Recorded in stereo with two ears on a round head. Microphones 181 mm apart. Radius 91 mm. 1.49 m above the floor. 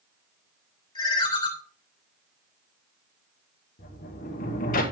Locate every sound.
0.9 s a ringtone: 25° left (ahead or behind), 1.9 m
3.8 s a sliding door: 40° left (ahead or behind), 1.3 m